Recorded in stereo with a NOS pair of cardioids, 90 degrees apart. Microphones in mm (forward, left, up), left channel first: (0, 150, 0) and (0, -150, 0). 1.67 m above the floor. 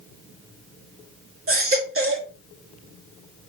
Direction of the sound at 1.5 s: 45° right.